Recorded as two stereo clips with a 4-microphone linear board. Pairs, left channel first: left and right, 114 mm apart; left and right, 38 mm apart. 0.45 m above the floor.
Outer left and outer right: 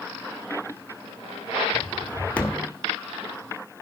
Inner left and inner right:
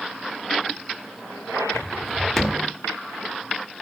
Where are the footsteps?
10° left (ahead or behind), 1.9 m.